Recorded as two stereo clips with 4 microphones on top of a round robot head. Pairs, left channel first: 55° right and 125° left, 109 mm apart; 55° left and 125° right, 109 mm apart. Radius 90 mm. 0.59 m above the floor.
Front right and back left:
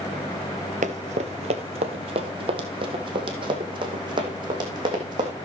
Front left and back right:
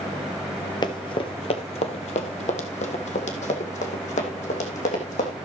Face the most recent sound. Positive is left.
turn(degrees=70)